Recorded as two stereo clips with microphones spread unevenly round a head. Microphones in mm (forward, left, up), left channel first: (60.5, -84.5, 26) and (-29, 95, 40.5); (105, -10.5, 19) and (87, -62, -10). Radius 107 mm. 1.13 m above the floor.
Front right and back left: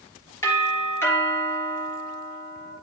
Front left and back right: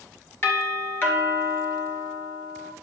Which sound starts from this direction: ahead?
A doorbell, at 0.4 s.